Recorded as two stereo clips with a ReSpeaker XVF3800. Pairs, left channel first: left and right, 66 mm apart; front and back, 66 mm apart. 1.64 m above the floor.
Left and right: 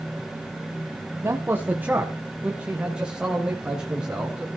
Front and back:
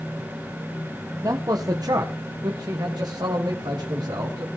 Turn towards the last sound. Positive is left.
turn(degrees=-170)